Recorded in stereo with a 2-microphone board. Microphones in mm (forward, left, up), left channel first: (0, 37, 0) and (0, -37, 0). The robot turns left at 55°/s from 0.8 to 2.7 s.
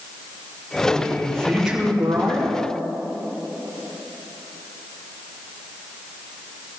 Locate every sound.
0.8 s a man speaking: 35° left, 2.5 m; by 2.6 s 60° right, 2.5 m